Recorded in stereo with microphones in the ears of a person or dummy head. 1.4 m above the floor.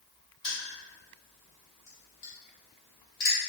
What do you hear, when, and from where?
0.4 s crushing: 35° left (ahead or behind), 1.2 m